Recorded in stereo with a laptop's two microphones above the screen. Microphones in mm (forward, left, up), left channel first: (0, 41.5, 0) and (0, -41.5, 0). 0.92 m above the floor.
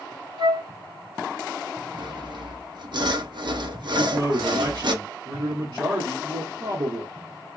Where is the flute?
70° right (ahead or behind), 2.5 m.